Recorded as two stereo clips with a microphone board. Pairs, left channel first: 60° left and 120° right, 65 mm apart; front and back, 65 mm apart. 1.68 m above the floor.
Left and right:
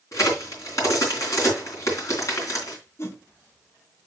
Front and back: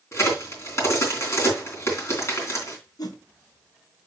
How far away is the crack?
About 3 m.